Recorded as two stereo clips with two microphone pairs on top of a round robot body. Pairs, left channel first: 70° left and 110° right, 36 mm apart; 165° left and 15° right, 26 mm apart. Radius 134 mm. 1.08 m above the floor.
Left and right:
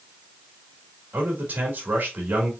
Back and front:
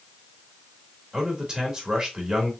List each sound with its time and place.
1.1 s a man speaking: 65° right, 2.5 m